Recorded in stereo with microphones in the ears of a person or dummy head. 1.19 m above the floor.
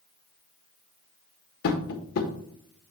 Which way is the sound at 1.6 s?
75° left (ahead or behind).